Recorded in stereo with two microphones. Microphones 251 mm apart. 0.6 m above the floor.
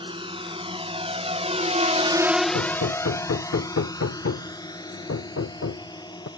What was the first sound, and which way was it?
A drone, 20° right (ahead or behind).